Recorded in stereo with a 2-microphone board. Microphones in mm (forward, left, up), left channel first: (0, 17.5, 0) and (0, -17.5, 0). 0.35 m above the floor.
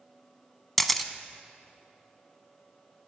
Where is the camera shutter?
5° left (ahead or behind), 0.5 m.